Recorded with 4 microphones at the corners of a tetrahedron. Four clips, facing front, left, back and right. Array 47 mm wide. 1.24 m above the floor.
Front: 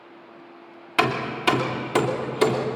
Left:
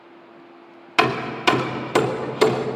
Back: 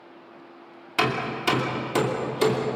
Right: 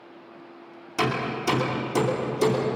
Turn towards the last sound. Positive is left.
turn(degrees=70)